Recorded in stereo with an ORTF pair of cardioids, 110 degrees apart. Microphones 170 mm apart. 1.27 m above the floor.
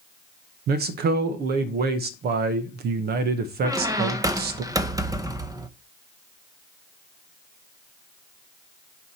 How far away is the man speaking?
About 1.1 m.